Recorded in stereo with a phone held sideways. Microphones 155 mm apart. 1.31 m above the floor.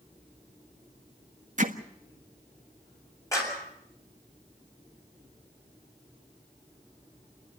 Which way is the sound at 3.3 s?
20° left (ahead or behind).